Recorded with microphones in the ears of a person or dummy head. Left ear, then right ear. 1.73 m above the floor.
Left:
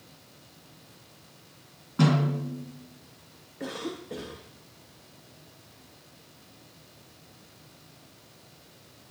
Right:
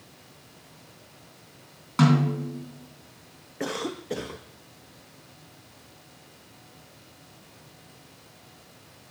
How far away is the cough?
About 0.5 m.